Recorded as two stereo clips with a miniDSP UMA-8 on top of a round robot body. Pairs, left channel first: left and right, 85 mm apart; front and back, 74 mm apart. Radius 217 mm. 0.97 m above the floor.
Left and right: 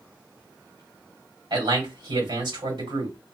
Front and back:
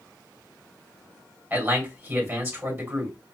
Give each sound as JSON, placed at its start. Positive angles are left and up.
{"t": 1.5, "sound": "a man speaking", "azimuth_deg": -115, "distance_m": 2.5}